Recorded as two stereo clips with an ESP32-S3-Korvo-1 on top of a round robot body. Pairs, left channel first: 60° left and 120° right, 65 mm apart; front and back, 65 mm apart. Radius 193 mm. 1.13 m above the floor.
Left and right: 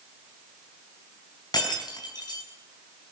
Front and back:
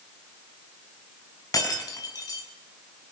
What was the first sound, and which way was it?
Breaking glass, 35° left.